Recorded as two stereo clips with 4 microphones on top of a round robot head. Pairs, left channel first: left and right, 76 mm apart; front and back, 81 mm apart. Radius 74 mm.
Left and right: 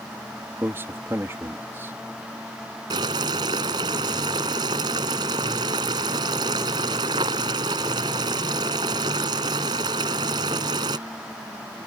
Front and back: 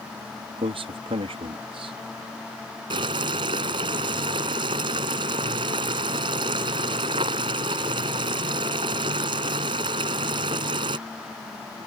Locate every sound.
0.6 s a man speaking: 160° right
2.9 s boiling: 135° right